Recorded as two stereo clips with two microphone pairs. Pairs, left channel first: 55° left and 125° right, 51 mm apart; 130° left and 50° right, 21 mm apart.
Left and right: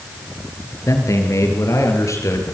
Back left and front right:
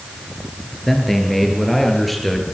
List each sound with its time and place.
0.9 s a man speaking: 45° left, 8 m; by 2.4 s 40° left, 8.5 m